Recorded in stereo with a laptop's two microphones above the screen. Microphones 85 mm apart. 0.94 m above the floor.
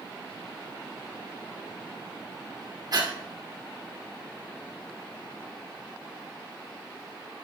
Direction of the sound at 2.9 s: 50° right (ahead or behind).